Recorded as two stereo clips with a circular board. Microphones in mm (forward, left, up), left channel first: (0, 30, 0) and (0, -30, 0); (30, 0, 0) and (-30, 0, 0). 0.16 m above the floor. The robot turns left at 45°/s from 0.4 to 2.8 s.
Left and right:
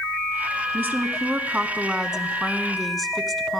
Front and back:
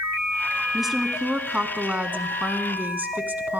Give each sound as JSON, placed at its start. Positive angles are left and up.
{"t": 0.7, "sound": "a woman speaking", "azimuth_deg": -95, "distance_m": 1.1}